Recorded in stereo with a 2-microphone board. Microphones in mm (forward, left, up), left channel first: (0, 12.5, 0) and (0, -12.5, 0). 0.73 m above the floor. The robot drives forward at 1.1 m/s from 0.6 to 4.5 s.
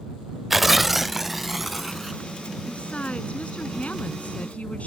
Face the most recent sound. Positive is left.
turn(degrees=60)  # may be behind; listen again after turning